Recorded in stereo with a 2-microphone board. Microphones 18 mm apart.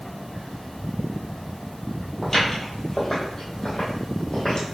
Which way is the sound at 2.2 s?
20° left (ahead or behind).